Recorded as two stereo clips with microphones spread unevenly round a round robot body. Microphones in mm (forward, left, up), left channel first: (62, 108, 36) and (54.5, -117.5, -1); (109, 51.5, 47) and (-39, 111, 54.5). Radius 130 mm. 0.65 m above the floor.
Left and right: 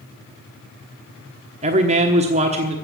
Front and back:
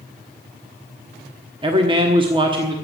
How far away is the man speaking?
About 1.1 m.